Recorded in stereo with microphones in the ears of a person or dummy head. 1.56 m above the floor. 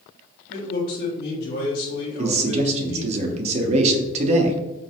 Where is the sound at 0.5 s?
50° left (ahead or behind), 1.5 m.